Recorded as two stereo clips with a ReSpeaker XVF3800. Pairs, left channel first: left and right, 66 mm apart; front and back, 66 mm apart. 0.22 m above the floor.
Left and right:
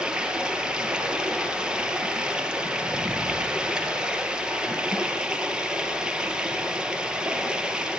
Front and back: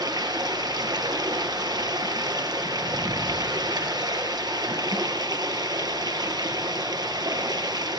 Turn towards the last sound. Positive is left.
turn(degrees=-170)